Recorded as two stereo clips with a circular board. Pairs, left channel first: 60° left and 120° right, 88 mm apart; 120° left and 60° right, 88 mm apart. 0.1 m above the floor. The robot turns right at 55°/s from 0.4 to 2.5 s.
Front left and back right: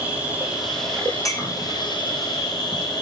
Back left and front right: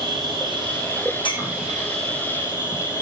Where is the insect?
50° right, 5 m; by 3.0 s 65° left, 5 m.